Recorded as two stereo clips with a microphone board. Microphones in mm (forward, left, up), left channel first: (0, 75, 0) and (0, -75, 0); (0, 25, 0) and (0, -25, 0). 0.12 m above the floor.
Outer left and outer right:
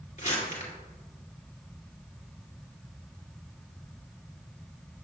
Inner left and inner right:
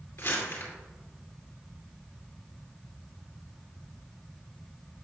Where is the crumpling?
50° left (ahead or behind), 2 m.